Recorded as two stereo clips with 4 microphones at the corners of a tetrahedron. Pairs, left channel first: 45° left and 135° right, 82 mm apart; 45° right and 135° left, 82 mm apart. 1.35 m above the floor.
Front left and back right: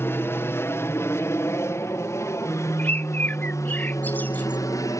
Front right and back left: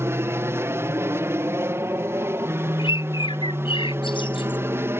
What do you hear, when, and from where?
0.0 s an aircraft: 90° left; by 5.0 s 80° left
2.8 s a bird: 25° right